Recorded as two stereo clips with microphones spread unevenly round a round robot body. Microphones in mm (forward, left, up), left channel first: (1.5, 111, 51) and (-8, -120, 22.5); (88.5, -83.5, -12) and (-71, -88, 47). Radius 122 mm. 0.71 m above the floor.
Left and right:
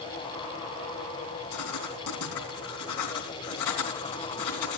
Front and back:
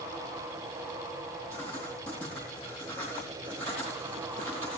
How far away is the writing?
About 3.5 m.